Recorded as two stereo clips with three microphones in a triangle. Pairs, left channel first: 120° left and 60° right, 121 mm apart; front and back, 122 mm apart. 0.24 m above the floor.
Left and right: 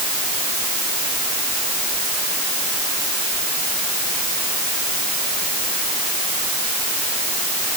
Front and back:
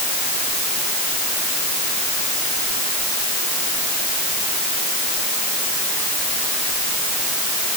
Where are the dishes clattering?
I don't hear dishes clattering.